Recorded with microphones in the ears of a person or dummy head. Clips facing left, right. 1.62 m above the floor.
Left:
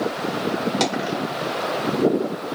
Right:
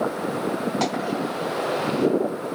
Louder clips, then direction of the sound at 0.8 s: Left 1 dB; 45° left (ahead or behind).